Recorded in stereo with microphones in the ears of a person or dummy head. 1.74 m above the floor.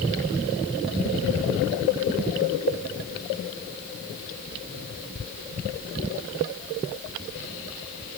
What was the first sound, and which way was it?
Only background noise.